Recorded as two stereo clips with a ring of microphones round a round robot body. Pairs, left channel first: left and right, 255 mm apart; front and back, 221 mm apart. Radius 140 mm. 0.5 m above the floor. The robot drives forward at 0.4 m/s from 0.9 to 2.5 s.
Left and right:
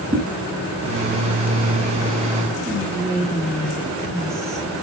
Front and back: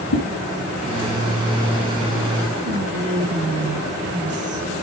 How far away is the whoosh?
About 2.5 m.